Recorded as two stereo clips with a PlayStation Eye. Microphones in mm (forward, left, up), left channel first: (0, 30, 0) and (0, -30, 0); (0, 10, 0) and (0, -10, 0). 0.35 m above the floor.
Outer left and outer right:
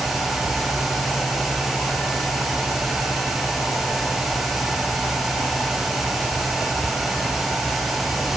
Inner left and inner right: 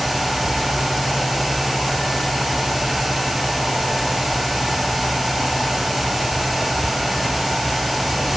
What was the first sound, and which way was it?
Only background noise.